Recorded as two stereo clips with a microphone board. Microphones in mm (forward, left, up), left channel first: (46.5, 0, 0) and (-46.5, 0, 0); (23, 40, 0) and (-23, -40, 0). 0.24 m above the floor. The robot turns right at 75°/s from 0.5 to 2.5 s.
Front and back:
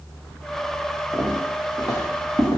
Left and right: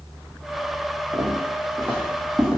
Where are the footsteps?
90° right, 1.4 m; by 2.6 s 25° right, 1.1 m.